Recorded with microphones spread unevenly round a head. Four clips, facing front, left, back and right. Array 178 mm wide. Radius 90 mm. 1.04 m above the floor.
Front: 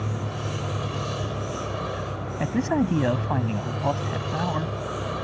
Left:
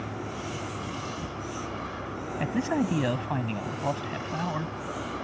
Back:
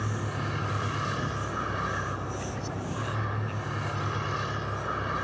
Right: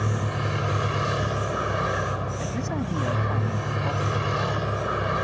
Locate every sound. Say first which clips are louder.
0.0 s a vehicle: right 6 dB, front 2 dB; 75° right
2.4 s a man speaking: left 2 dB, front 12 dB; 10° left